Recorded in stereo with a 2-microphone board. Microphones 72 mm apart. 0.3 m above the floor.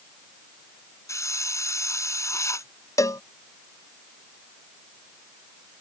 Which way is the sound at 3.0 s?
50° left (ahead or behind).